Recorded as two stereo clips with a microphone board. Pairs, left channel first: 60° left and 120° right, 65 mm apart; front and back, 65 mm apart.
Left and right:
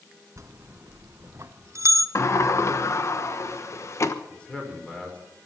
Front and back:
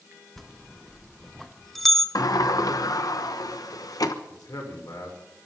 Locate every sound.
0.4 s a bell: 85° right, 0.8 m
2.1 s a sliding door: 20° left, 1.1 m
4.3 s a man speaking: 15° right, 5.5 m